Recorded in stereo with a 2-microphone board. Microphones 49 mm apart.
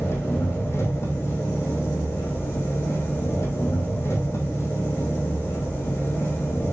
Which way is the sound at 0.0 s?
75° left (ahead or behind).